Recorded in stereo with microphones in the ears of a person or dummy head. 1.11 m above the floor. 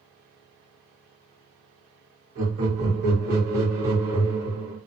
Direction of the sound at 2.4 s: 65° right (ahead or behind).